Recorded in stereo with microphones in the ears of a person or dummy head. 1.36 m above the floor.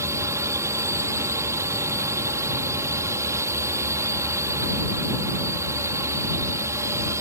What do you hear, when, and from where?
0.0 s a drone: 10° right (ahead or behind)